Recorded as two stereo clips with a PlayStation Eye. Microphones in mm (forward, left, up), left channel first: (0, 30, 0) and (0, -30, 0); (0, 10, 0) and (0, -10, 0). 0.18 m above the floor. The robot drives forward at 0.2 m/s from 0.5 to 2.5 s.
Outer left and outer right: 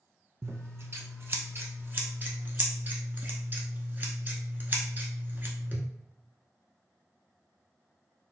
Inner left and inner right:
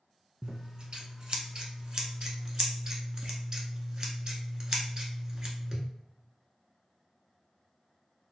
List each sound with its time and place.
0.4 s scissors: 50° right (ahead or behind), 0.6 m; by 5.8 s 35° right (ahead or behind), 0.8 m